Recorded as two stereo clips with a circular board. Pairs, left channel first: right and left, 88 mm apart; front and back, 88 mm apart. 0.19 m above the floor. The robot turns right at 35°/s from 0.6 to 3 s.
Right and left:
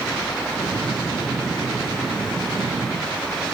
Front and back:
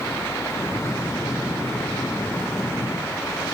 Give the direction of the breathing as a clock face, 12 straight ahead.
No breathing in this recording.